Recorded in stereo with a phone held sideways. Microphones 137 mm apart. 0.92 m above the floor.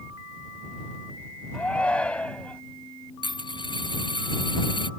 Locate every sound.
1.5 s a shout: 10° left (ahead or behind)
3.2 s a dropped coin: 35° left (ahead or behind)